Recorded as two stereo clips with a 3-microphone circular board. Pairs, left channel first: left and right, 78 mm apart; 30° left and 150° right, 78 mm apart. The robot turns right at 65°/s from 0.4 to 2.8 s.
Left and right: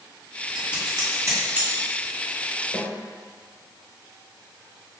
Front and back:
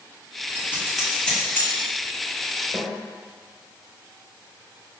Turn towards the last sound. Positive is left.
turn(degrees=170)